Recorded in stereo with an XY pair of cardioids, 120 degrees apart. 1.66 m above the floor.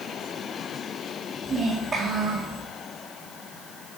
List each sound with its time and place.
1.4 s a child speaking: 45° right, 1.6 m